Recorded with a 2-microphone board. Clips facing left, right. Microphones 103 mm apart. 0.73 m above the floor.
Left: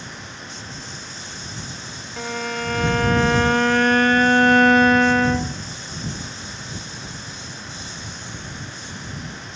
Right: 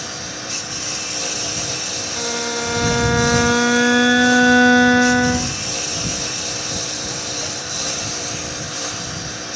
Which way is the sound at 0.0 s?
80° right.